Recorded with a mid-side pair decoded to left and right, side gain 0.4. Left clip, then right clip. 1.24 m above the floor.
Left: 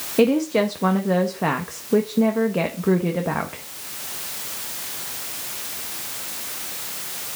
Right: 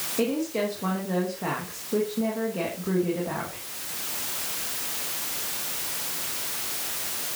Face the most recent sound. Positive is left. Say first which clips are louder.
# left 9 dB
turn(degrees=65)